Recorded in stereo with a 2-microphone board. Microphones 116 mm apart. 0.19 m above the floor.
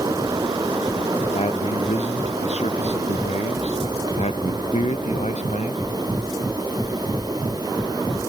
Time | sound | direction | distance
1.4 | a man speaking | 65° left (ahead or behind) | ?